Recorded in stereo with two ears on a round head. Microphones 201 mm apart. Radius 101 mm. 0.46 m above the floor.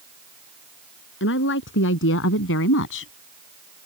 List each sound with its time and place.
1.2 s a woman speaking: 60° left (ahead or behind); by 3.1 s 65° left (ahead or behind)